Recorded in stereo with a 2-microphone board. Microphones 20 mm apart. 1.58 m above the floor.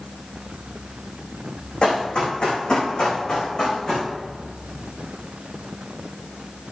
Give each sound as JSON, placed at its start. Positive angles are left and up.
{"t": 1.8, "sound": "running footsteps", "side_deg": 45, "distance_m": 5.5}